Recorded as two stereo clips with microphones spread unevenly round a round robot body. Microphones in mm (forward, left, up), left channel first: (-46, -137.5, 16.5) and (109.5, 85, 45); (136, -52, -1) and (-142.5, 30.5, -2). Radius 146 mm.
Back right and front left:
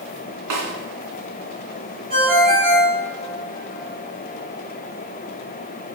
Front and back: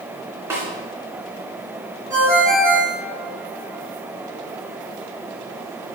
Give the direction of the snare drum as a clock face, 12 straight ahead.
9 o'clock.